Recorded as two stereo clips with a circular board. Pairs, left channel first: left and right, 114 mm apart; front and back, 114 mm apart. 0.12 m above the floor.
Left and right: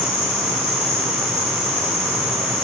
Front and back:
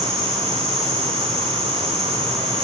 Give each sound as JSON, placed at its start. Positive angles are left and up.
{"t": 0.0, "sound": "an insect", "azimuth_deg": -85, "distance_m": 3.5}